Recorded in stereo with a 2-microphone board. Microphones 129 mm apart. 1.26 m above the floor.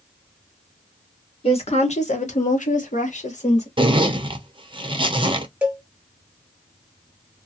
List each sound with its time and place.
1.4 s a woman speaking: 50° left (ahead or behind), 1.1 m; by 3.7 s 60° left (ahead or behind), 1.2 m
3.8 s a zipper: 40° right (ahead or behind), 0.5 m
5.6 s a cowbell: 10° right (ahead or behind), 0.8 m